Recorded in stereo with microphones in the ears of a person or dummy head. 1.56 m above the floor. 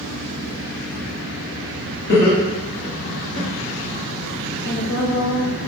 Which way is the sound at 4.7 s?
75° left (ahead or behind).